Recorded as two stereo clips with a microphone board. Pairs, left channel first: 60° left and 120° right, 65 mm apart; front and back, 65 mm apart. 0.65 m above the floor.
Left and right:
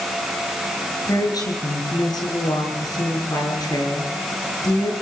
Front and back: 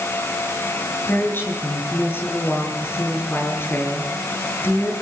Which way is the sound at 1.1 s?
55° left.